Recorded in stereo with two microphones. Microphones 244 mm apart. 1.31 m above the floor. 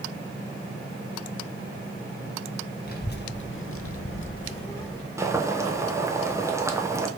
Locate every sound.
2.8 s a child speaking: 40° left (ahead or behind), 1.5 m; by 5.1 s 5° left (ahead or behind), 1.2 m
5.2 s boiling: 10° right (ahead or behind), 0.8 m